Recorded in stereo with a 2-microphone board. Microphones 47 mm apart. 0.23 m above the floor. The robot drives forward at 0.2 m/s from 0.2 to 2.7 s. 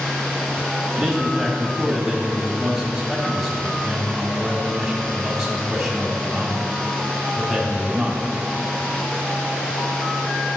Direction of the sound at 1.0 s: Centre (ahead or behind).